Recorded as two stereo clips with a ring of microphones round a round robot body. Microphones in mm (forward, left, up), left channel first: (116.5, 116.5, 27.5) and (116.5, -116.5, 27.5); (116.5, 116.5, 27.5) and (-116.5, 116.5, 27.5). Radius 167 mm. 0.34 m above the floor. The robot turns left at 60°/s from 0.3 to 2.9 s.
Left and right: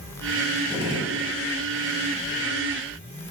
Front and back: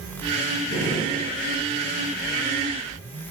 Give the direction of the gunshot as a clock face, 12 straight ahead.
1 o'clock.